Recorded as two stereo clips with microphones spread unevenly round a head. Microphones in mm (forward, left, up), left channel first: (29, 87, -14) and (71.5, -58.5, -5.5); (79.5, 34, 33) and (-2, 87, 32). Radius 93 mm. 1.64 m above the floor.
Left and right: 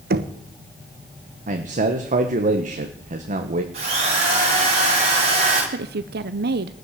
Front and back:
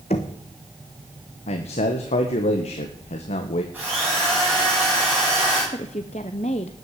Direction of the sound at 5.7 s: 85° right.